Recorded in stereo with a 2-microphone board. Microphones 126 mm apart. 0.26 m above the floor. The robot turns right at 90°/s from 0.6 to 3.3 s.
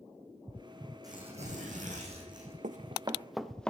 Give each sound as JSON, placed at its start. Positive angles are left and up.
{"t": 1.0, "sound": "tearing paper", "azimuth_deg": -150, "distance_m": 6.0}
{"t": 2.6, "sound": "running footsteps", "side_deg": -70, "distance_m": 0.8}